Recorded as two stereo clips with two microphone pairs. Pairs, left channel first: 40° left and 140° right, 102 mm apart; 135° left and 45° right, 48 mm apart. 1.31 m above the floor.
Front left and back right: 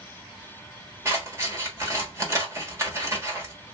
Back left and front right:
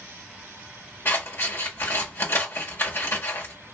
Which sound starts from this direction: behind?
Scissors, at 1.1 s.